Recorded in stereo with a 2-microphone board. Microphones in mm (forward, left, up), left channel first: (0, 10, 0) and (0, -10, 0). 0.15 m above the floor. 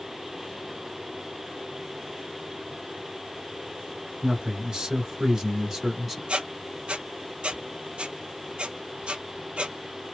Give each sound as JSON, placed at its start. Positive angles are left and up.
{"t": 4.2, "sound": "a man speaking", "side_deg": -45, "distance_m": 1.8}
{"t": 6.3, "sound": "a squeak", "side_deg": -55, "distance_m": 0.7}